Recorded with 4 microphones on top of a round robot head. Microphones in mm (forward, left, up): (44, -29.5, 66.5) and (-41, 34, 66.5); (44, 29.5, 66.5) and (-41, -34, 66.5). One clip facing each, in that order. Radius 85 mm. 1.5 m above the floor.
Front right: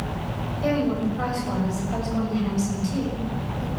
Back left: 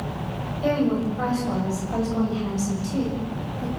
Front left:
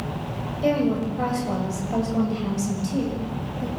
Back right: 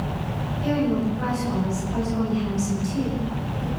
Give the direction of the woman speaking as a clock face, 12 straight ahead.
10 o'clock.